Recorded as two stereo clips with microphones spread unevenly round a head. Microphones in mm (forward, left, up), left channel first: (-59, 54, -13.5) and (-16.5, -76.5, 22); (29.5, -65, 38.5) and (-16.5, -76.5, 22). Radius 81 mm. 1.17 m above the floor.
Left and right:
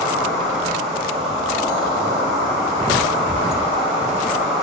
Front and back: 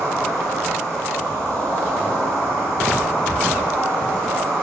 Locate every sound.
0.0 s an insect: 155° right, 2 m